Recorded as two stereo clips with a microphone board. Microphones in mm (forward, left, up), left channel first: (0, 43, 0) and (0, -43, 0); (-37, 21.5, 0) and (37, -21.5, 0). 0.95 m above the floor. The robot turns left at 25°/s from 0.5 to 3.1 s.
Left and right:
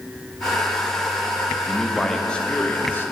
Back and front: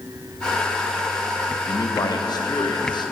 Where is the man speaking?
175° right, 0.7 m; by 3.1 s 150° left, 0.7 m.